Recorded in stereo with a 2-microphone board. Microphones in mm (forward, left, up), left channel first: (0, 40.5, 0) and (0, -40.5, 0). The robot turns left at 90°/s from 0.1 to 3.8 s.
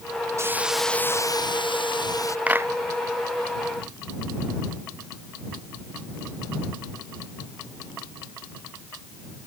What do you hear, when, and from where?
0.4 s a hiss: 145° right; by 2.4 s 35° left
2.5 s a clap: 20° right (ahead or behind); by 2.7 s 40° right (ahead or behind)